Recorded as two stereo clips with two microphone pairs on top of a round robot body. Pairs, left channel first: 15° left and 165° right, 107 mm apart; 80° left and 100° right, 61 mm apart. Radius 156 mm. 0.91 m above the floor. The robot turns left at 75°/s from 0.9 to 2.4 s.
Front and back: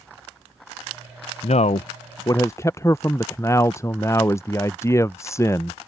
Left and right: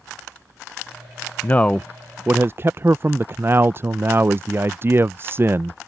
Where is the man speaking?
25° left; by 5.8 s 45° right.